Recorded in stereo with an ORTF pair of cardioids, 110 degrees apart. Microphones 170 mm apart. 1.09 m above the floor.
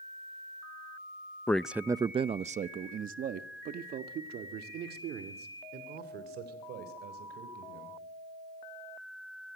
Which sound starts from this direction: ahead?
A man speaking, at 1.5 s.